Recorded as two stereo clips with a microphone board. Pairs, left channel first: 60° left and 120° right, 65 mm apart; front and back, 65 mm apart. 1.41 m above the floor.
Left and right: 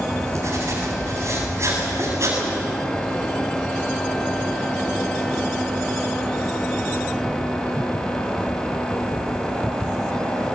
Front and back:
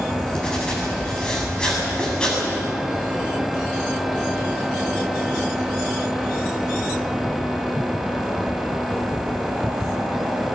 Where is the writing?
75° right, 7.5 m.